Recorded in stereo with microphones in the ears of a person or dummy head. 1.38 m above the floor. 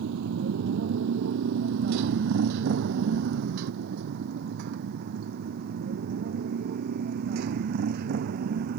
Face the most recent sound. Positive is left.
turn(degrees=-55)  # may be behind; listen again after turning